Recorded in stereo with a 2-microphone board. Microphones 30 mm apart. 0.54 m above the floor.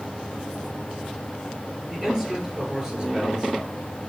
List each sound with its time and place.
1.9 s a man speaking: 15° right (ahead or behind), 9.5 m; by 3.9 s 30° right (ahead or behind), 8 m